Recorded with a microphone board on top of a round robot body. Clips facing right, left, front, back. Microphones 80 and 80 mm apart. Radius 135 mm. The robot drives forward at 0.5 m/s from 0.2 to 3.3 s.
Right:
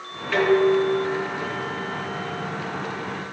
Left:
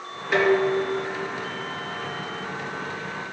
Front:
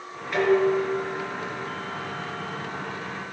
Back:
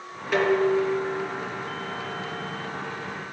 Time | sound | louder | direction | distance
0.3 | dishes clattering | right 2 dB, even | 165° left | 3.5 m